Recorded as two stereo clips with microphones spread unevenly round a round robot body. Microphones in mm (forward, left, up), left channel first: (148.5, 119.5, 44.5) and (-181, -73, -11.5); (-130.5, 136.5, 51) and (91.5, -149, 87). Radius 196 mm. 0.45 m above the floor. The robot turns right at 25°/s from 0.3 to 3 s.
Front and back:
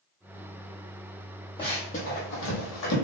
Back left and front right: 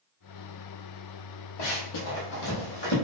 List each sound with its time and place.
1.6 s running footsteps: 100° left, 0.9 m; by 3.0 s 65° left, 0.9 m